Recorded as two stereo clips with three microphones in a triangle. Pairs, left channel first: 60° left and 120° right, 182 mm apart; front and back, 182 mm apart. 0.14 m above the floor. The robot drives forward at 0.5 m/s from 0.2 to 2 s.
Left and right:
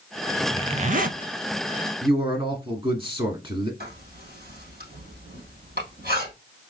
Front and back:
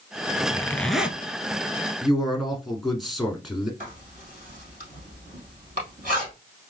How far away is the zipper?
About 0.5 m.